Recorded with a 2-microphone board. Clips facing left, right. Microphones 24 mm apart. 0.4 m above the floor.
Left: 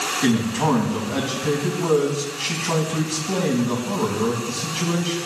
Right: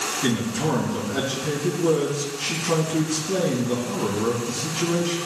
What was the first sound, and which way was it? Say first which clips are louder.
A man speaking: left 5 dB; 65° left (ahead or behind).